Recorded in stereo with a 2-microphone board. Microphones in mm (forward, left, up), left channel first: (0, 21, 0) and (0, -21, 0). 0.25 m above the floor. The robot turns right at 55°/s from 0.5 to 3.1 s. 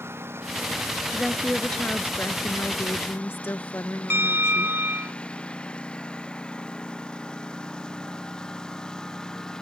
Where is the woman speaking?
5° right; by 4.8 s 100° left.